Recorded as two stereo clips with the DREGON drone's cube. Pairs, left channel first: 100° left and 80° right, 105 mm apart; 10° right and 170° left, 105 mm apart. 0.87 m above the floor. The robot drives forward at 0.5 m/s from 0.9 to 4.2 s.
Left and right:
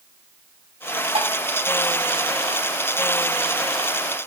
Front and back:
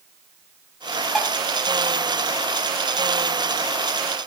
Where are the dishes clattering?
100° right, 4.5 m.